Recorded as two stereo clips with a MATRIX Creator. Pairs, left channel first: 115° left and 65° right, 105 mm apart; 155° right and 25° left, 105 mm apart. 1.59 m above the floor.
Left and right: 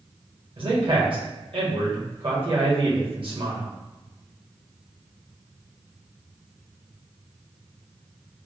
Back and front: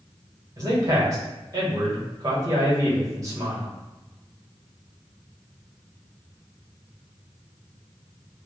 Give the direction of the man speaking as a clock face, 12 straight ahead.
1 o'clock.